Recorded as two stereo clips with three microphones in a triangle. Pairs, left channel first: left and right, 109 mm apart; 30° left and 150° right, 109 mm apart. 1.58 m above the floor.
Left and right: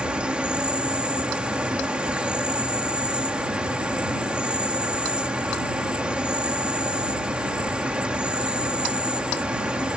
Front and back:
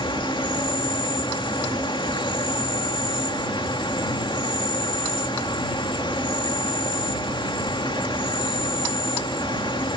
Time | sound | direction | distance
0.0 | an insect | 10° right | ?